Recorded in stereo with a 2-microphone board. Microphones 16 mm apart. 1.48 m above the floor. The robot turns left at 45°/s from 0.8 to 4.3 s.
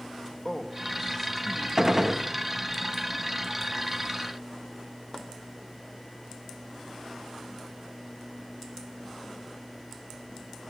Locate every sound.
0.5 s a man speaking: 45° left, 2.5 m; by 1.7 s 5° left, 2.5 m
1.8 s a gunshot: 30° right (ahead or behind), 0.9 m; by 2.3 s 20° right (ahead or behind), 0.9 m